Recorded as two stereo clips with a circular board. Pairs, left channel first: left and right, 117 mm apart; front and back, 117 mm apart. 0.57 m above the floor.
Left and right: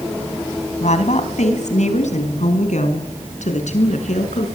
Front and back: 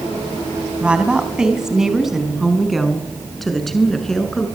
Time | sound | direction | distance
0.8 | a woman speaking | 100° left | 4 m